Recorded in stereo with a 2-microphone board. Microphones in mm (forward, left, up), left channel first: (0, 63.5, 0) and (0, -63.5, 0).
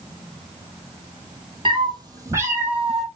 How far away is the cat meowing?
About 1.3 m.